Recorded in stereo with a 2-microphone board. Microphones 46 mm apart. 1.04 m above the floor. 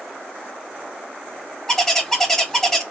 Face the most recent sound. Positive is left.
turn(degrees=10)  # may be behind; listen again after turning